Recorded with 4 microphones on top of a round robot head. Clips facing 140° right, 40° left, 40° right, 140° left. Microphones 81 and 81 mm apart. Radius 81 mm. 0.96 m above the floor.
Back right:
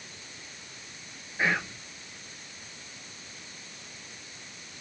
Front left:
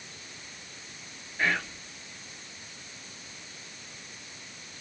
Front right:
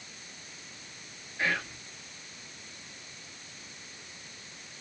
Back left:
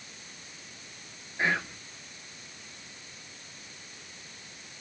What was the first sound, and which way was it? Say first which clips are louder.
Whispering: back right 1 dB, back left 2 dB; 165° left.